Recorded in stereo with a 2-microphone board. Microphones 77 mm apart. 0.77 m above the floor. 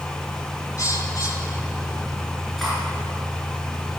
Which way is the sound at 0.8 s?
45° left (ahead or behind).